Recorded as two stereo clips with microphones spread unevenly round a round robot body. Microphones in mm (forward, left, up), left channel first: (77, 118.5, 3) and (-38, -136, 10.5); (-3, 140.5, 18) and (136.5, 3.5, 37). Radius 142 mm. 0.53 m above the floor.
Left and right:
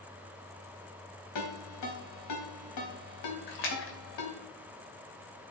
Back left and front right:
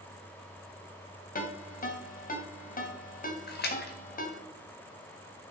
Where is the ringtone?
90° left, 2.5 m.